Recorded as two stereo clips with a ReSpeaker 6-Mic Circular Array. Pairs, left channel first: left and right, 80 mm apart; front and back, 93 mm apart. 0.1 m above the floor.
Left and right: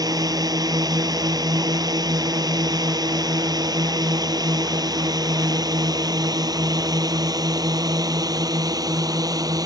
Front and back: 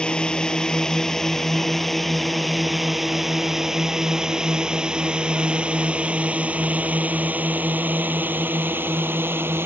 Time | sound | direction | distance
0.0 | a drone | 80° right | ?